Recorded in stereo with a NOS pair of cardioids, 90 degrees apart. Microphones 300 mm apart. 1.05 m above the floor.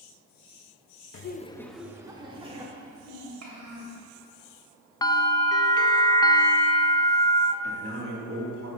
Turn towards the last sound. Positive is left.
turn(degrees=-50)